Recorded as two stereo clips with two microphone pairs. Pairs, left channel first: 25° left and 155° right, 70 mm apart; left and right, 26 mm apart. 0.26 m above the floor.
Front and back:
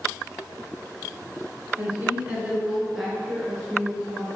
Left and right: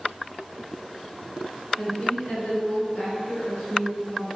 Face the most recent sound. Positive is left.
turn(degrees=110)